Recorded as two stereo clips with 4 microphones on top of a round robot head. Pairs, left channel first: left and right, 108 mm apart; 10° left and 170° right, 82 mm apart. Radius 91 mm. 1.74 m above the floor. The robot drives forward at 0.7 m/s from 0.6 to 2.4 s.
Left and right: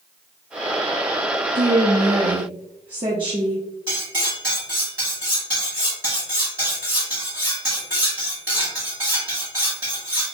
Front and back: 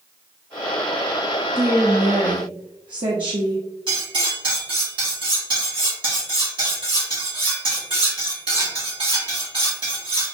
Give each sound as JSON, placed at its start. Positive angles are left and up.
{"t": 1.6, "sound": "a woman speaking", "azimuth_deg": -85, "distance_m": 0.6}
{"t": 3.9, "sound": "cutlery clinking", "azimuth_deg": -160, "distance_m": 1.9}